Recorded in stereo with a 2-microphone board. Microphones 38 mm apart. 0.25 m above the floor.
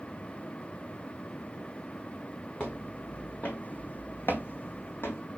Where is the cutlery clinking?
I don't hear cutlery clinking.